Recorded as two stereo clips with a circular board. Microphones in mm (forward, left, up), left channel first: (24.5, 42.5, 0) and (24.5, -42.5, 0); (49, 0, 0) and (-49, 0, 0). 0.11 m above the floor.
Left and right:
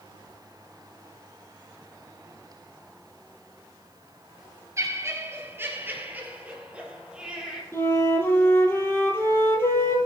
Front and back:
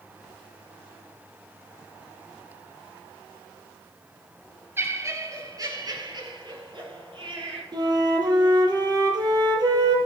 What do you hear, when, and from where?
4.8 s laughter: 125° right, 2 m; by 7.6 s 170° right, 3 m
7.7 s a flute: 145° left, 1.9 m